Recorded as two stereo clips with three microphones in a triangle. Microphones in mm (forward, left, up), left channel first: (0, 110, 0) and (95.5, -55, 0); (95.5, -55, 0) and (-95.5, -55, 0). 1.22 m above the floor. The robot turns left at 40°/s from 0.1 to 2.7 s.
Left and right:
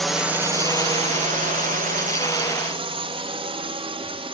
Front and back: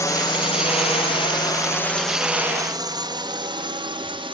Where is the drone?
35° left; by 4.3 s 120° right.